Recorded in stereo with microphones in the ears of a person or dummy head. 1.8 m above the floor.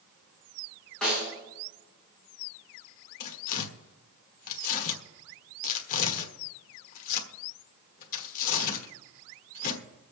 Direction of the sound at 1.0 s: 5° left (ahead or behind).